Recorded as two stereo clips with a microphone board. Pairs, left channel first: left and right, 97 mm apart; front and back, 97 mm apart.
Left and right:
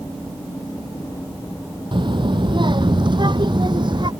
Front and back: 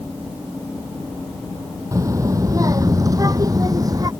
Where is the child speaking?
125° right; by 4.1 s 130° right.